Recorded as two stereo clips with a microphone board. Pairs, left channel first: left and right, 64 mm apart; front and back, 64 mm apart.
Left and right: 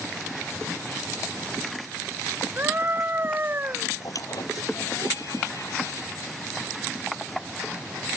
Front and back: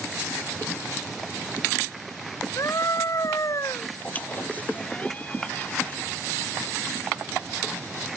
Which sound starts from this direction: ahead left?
A squeak, at 4.0 s.